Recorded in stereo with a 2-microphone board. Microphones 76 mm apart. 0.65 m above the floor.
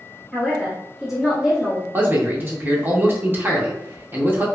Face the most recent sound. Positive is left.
turn(degrees=-25)  # may be behind; listen again after turning